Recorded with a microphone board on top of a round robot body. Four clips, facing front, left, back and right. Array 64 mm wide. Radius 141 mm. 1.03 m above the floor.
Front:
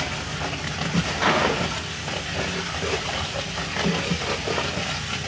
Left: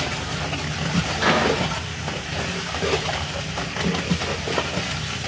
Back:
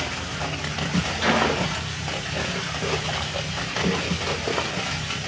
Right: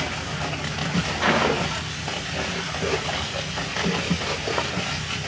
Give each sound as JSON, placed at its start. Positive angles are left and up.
{"t": 1.2, "sound": "a microwave", "azimuth_deg": -40, "distance_m": 8.5}